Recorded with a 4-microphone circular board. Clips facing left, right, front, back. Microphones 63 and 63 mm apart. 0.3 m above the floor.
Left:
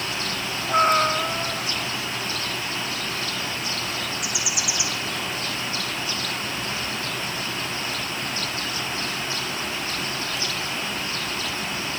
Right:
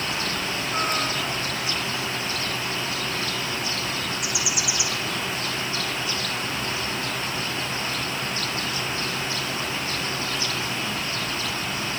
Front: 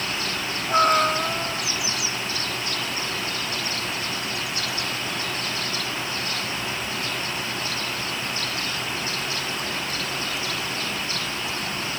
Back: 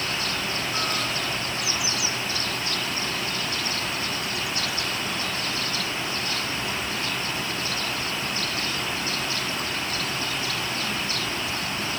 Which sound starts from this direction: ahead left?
A cat meowing, at 0.7 s.